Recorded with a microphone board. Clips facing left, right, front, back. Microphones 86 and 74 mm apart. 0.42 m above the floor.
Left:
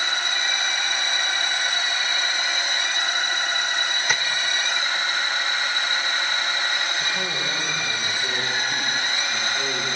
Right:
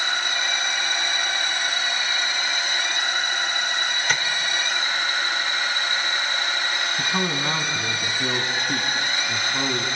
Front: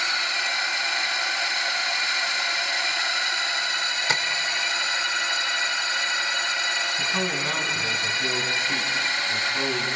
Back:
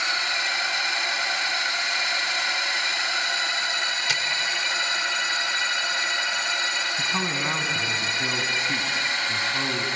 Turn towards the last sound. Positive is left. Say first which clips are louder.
# right 3 dB, even
turn(degrees=-110)